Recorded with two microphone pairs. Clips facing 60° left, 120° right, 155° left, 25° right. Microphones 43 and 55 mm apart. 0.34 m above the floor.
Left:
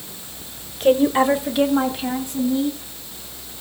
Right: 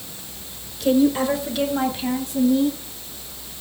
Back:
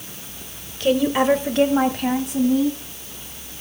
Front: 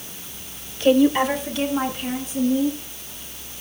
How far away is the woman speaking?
About 1.0 m.